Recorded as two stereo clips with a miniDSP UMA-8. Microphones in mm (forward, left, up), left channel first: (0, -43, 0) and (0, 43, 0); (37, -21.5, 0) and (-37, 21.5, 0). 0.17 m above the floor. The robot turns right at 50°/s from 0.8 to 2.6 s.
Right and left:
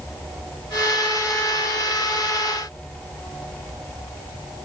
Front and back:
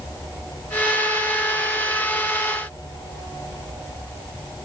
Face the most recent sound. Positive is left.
No sound to turn to.